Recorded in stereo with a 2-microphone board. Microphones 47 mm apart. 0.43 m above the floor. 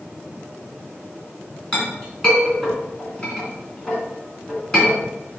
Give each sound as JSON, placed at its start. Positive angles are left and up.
{"t": 1.7, "sound": "a clink", "side_deg": 15, "distance_m": 3.0}